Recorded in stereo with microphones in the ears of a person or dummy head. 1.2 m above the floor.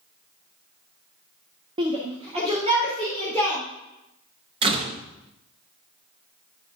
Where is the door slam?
35° right (ahead or behind), 1.2 m.